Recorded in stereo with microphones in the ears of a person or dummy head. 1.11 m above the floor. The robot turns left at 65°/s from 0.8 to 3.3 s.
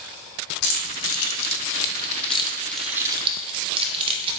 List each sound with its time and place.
0.6 s keys jangling: 50° left (ahead or behind), 0.5 m; by 4.4 s 30° right (ahead or behind), 0.5 m